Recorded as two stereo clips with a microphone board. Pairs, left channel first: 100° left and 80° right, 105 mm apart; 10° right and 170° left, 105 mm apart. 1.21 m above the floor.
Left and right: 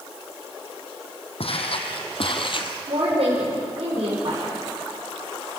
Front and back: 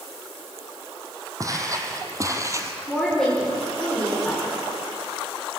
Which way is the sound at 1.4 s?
115° left.